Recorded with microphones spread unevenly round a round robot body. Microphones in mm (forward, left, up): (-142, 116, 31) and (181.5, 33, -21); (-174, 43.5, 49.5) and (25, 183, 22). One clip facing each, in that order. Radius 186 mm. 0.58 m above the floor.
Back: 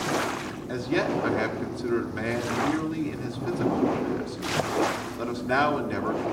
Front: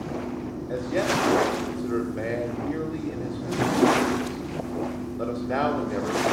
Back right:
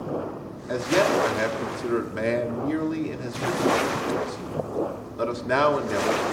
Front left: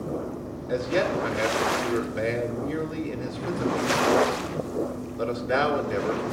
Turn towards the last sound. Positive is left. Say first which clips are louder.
# even, back right 3 dB
turn(degrees=-170)